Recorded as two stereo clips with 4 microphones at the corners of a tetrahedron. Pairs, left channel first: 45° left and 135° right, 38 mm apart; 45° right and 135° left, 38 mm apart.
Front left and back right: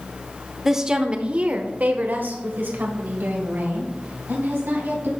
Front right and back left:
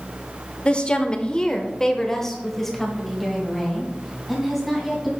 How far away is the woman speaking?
About 0.9 m.